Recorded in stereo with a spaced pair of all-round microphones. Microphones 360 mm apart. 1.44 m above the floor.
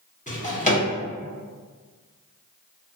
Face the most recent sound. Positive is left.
turn(degrees=20)  # may be behind; listen again after turning